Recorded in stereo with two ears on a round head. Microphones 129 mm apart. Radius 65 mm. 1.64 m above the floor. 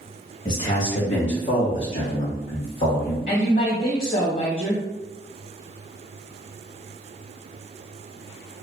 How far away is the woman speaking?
About 1.0 m.